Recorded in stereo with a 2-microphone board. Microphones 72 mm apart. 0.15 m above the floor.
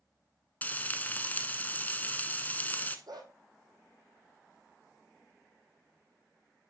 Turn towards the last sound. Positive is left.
turn(degrees=-75)  # may be behind; listen again after turning